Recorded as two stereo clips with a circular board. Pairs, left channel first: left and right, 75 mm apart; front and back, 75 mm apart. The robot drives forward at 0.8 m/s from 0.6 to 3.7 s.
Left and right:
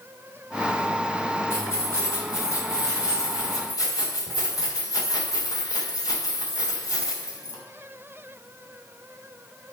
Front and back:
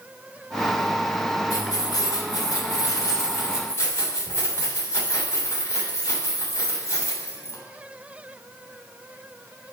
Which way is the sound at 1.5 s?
35° left.